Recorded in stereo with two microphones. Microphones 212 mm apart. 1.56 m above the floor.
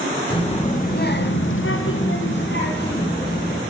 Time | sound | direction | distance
0.3 | a child speaking | 25° left (ahead or behind) | 1.1 m